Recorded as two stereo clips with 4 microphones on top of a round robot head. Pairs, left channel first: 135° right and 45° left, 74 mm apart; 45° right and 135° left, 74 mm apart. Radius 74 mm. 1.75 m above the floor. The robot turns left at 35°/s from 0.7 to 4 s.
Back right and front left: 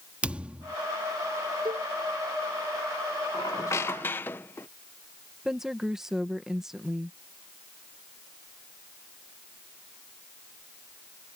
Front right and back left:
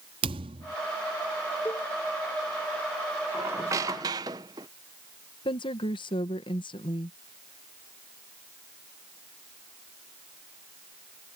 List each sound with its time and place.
0.2 s a thud: 120° left
1.6 s a cowbell: 15° left; by 1.9 s 5° left
3.3 s a squeak: 170° right; by 4.7 s 165° left
5.5 s a woman speaking: 35° right